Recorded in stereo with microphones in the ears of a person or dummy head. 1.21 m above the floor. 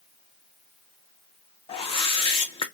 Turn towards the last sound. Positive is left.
turn(degrees=30)  # may be behind; listen again after turning